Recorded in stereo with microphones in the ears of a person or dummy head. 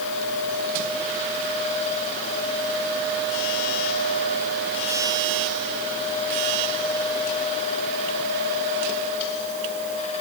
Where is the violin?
I don't hear a violin.